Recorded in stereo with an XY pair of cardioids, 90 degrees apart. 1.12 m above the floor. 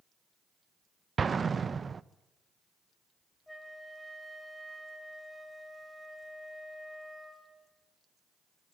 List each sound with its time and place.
1.2 s an explosion: 40° right, 0.6 m
3.5 s a flute: 5° left, 3 m